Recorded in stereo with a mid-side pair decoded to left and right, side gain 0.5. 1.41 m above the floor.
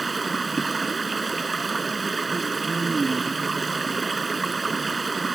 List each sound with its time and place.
0.0 s running water: 25° right